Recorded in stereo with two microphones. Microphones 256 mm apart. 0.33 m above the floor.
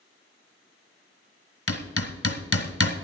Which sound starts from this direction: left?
Hammering, at 1.7 s.